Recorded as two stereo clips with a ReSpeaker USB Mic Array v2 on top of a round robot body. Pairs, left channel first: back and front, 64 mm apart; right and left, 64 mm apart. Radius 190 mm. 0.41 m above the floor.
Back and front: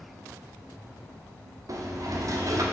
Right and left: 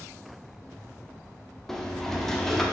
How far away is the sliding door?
About 1.3 m.